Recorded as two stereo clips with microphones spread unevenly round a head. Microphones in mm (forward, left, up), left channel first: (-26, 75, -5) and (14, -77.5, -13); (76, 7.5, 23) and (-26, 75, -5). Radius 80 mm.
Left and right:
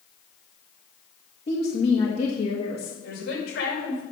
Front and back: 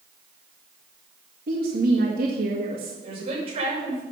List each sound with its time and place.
1.5 s a woman speaking: 160° left, 1.9 m
3.0 s a woman speaking: 105° left, 6 m